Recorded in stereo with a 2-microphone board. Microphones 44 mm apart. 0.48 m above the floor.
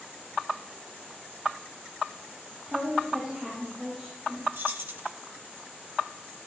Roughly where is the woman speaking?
Centre.